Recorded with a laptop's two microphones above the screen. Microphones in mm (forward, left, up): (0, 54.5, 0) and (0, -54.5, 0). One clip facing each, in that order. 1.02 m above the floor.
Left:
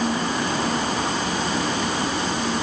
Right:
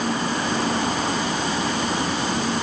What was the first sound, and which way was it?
Only background noise.